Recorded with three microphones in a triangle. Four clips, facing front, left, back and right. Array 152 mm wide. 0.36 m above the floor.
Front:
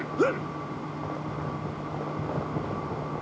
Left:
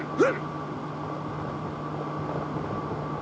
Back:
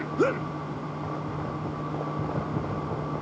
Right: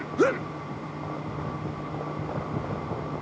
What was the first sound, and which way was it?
Only background noise.